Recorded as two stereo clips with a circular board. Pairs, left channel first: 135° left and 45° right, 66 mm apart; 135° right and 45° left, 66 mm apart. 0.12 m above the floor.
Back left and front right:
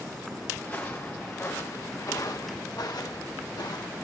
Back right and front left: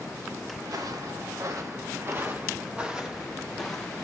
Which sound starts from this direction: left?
Footsteps, at 0.6 s.